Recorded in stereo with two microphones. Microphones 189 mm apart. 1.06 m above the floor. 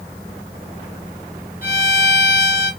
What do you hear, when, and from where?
1.6 s a violin: 50° left (ahead or behind), 2 m